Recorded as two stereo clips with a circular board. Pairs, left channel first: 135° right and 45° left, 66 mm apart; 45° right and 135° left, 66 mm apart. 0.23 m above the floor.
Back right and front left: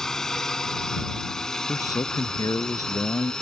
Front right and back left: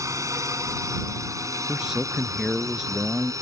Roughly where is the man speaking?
Behind right.